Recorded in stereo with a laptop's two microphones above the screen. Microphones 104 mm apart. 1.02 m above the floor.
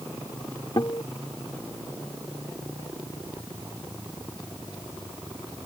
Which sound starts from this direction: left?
A guitar, at 0.8 s.